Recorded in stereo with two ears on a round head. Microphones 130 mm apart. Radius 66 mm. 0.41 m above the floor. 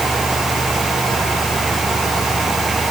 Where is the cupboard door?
No cupboard door in this recording.